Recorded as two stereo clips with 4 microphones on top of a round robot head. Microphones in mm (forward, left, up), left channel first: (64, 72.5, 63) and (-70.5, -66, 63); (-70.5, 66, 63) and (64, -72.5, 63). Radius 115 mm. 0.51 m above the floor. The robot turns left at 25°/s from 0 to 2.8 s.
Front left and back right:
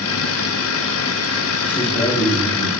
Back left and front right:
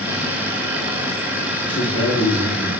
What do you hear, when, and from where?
1.6 s a man speaking: 65° left, 1.4 m; by 2.7 s 40° left, 1.4 m